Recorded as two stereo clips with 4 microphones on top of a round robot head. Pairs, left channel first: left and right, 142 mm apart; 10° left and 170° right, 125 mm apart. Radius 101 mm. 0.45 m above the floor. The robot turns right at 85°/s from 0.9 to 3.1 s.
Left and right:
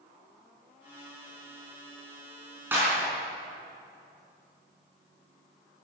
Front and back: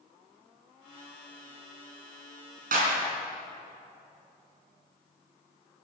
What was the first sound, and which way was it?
A clap, 170° right.